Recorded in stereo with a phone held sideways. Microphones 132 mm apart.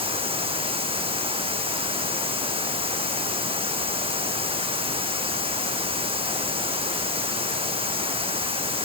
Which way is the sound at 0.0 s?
45° right (ahead or behind).